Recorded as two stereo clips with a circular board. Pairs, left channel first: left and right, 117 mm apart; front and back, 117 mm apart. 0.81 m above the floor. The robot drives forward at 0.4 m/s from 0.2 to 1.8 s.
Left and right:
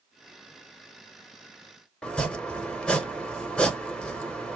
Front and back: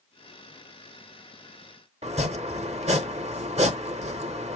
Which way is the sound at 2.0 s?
170° left.